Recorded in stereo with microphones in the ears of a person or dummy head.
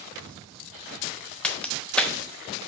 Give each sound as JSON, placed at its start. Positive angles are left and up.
{"t": 1.4, "sound": "a crack", "side_deg": 10, "distance_m": 0.6}